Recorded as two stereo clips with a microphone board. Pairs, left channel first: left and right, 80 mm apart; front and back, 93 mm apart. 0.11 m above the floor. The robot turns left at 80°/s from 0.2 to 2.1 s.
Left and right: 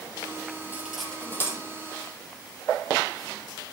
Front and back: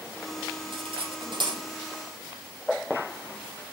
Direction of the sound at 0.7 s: 155° right.